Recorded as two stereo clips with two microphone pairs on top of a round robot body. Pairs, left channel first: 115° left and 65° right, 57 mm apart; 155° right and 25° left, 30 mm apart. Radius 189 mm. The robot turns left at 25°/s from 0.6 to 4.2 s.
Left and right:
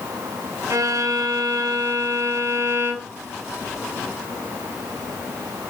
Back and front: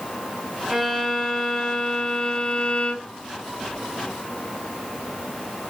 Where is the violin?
55° right, 3 m; by 3.2 s 115° right, 3 m.